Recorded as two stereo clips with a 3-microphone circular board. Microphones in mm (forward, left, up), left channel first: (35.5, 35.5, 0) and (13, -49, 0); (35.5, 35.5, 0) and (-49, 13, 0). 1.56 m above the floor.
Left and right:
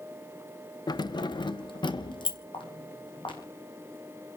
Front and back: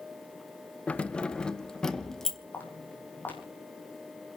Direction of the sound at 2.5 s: 85° left.